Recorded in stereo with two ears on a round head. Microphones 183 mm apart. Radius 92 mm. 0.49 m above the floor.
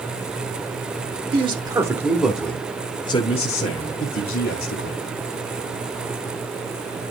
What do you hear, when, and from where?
1.3 s a man speaking: 25° right (ahead or behind), 1.5 m; by 5.0 s 55° left (ahead or behind), 2 m